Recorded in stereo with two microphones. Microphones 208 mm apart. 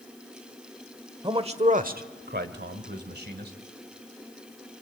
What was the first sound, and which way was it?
A man speaking, 20° right (ahead or behind).